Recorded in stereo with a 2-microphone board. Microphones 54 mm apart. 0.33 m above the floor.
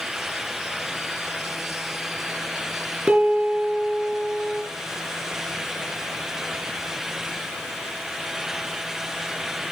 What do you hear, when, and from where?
3.1 s a piano: 30° right (ahead or behind), 3 m